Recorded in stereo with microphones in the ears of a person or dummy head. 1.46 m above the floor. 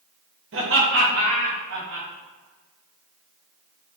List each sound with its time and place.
0.5 s laughter: 60° right (ahead or behind), 1.0 m